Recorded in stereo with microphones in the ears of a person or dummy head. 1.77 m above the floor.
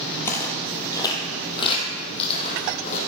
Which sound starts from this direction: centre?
Footsteps, at 0.2 s.